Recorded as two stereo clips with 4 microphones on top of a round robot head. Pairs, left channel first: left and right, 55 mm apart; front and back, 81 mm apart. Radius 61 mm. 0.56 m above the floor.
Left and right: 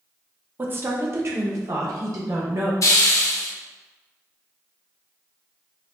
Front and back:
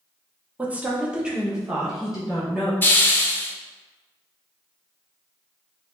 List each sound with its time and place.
0.6 s a woman speaking: 115° right, 0.8 m; by 2.7 s 90° right, 1.8 m
2.8 s a hiss: 65° left, 0.7 m